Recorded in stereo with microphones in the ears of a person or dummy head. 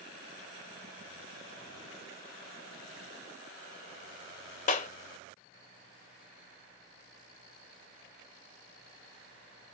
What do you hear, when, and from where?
4.7 s a clap: 45° left (ahead or behind), 0.6 m